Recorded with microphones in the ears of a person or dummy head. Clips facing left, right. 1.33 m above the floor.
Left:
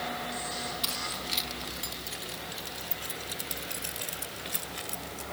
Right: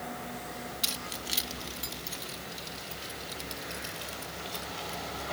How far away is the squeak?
I don't hear a squeak.